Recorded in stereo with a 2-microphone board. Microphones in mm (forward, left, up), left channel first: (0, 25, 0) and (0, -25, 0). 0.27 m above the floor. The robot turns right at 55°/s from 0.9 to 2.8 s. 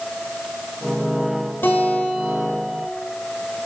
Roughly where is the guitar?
Behind left.